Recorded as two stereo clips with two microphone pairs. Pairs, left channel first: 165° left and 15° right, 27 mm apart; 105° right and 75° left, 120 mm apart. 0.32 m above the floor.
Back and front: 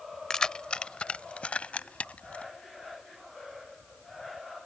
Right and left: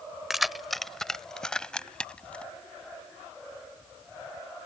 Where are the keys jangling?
160° left; by 2.4 s 175° left.